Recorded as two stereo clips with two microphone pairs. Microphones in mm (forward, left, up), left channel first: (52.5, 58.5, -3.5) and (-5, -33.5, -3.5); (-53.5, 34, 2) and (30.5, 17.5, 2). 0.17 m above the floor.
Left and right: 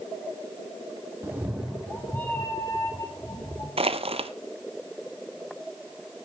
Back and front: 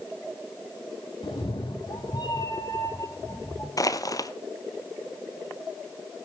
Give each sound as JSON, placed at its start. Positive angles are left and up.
{"t": 1.2, "sound": "a cat meowing", "azimuth_deg": 170, "distance_m": 1.3}
{"t": 3.8, "sound": "crushing", "azimuth_deg": -150, "distance_m": 0.7}